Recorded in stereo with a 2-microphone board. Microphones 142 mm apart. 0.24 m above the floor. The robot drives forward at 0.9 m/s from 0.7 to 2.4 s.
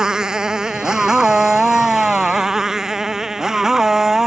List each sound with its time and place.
0.0 s a motorcycle: 5° right (ahead or behind)